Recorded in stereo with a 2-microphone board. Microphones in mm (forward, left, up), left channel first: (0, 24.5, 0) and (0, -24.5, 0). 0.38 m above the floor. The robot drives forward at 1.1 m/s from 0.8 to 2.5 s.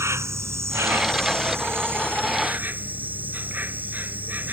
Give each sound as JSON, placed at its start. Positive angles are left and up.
{"t": 0.0, "sound": "an insect", "side_deg": -80}